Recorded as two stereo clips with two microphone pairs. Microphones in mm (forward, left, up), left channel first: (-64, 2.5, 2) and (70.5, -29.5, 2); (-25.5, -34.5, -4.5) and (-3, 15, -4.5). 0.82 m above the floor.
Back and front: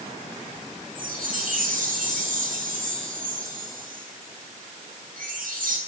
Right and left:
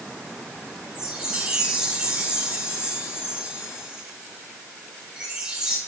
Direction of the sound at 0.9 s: 10° right.